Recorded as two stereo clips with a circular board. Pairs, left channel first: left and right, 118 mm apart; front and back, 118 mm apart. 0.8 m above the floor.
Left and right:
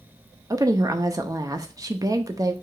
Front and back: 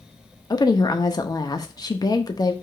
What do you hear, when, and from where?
0.5 s a woman speaking: 40° right, 0.6 m